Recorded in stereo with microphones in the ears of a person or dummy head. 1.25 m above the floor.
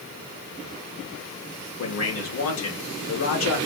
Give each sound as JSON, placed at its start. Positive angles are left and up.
{"t": 1.8, "sound": "a man speaking", "side_deg": 65, "distance_m": 1.4}